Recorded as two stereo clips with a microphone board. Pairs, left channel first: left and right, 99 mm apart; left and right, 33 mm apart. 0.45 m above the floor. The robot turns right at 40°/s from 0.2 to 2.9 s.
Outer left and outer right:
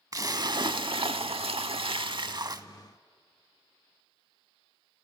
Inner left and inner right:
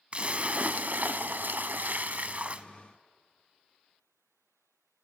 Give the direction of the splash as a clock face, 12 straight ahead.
5 o'clock.